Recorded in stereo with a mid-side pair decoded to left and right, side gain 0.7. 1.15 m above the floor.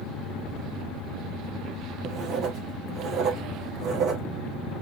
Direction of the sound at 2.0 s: 45° right.